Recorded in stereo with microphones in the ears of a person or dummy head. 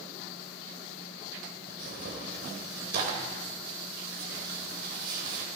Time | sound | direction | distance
1.7 | tearing paper | 60° right (ahead or behind) | 3 m